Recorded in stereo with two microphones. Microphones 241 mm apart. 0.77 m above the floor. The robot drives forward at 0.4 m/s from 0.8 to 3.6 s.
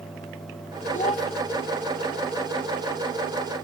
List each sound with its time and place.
0.9 s a child speaking: 30° left (ahead or behind), 1.9 m